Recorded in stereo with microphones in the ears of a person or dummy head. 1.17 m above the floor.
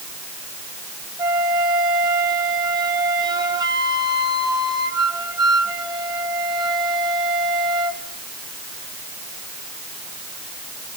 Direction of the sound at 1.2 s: 15° right (ahead or behind).